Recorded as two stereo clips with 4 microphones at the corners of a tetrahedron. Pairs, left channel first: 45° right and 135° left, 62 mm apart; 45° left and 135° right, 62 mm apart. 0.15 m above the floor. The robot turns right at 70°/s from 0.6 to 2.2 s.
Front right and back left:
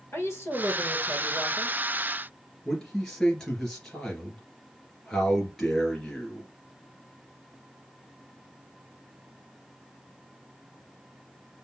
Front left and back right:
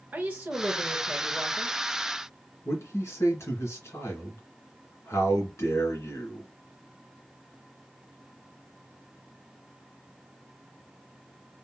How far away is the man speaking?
About 2.5 m.